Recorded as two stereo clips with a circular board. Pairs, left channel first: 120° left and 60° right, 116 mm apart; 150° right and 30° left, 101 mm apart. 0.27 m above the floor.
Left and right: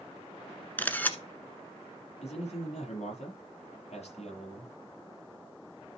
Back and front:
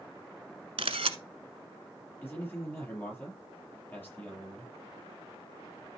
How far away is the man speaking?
About 6.5 m.